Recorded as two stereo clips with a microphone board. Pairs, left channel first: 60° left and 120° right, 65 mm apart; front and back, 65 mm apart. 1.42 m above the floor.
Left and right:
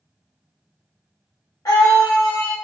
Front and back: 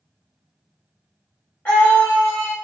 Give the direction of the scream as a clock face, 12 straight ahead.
10 o'clock.